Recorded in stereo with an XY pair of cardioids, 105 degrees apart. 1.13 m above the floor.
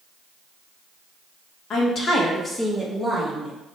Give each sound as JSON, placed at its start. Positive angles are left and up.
{"t": 1.7, "sound": "a woman speaking", "azimuth_deg": 60, "distance_m": 1.1}